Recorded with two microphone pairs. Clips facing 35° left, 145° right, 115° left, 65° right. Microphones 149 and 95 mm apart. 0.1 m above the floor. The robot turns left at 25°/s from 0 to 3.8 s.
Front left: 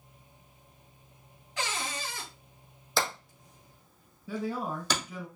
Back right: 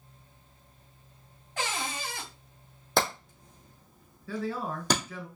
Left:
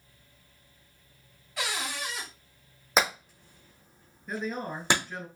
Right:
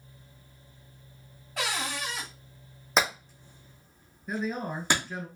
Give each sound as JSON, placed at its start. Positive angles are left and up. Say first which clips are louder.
{"t": 1.6, "sound": "a cupboard door", "louder": "back right 2 dB, right 2 dB", "azimuth_deg": -105, "distance_m": 3.0}
{"t": 3.0, "sound": "hammering", "louder": "back right 4 dB, even", "azimuth_deg": -160, "distance_m": 3.0}
{"t": 4.3, "sound": "a man speaking", "louder": "even, right 2 dB", "azimuth_deg": 10, "distance_m": 1.1}